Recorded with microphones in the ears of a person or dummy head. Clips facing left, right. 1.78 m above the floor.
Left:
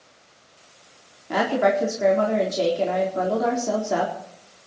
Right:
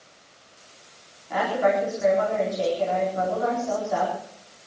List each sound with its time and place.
1.3 s a woman speaking: 65° left (ahead or behind), 4 m